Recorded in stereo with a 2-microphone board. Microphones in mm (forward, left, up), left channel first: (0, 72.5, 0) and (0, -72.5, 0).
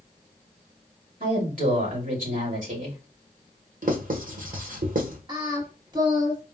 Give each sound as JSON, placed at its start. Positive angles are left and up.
{"t": 1.2, "sound": "a woman speaking", "side_deg": -70, "distance_m": 2.5}
{"t": 3.8, "sound": "writing", "side_deg": -70, "distance_m": 1.1}
{"t": 5.3, "sound": "singing", "side_deg": -30, "distance_m": 1.1}